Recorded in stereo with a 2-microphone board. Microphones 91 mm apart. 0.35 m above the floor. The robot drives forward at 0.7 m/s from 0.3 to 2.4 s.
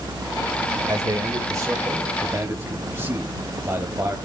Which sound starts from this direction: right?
A man speaking, at 0.9 s.